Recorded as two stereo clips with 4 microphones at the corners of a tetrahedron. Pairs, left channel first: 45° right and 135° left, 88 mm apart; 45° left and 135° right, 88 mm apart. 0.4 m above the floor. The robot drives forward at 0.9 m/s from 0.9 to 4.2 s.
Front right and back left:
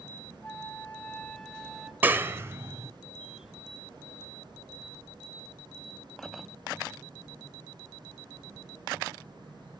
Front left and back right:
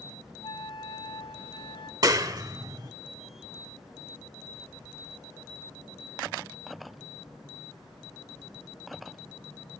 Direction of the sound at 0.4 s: 25° left.